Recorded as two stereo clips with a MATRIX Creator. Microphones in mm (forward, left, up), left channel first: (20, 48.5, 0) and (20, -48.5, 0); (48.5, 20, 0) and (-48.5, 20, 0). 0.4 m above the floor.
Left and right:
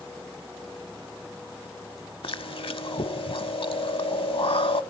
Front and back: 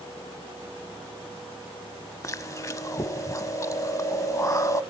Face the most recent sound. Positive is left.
turn(degrees=60)